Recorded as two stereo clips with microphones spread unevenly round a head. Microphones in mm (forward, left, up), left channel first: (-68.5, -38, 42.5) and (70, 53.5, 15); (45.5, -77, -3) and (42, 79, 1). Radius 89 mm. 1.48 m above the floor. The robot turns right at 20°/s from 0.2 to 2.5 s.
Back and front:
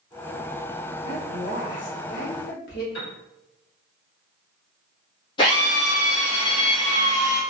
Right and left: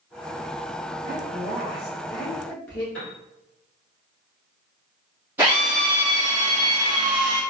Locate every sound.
1.0 s a woman speaking: 160° left, 1.0 m; by 2.8 s 170° right, 1.0 m
2.9 s a piano: 175° right, 1.6 m
5.4 s a drill: 165° left, 1.2 m